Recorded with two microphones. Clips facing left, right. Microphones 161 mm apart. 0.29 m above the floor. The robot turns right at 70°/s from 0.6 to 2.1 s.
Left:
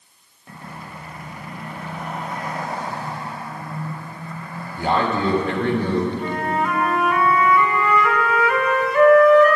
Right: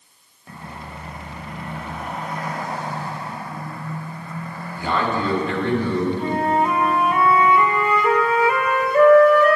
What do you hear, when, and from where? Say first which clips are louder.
4.8 s a man speaking: left 2 dB; 55° left (ahead or behind), 2 m
6.2 s a flute: right 3 dB; 35° right (ahead or behind), 0.9 m